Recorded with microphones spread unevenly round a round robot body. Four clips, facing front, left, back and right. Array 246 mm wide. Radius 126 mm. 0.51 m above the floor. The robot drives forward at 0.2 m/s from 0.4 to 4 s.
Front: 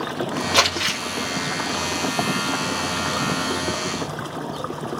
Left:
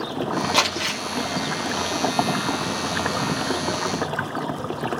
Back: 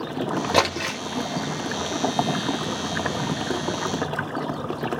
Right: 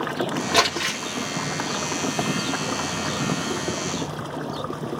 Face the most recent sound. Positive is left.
turn(degrees=180)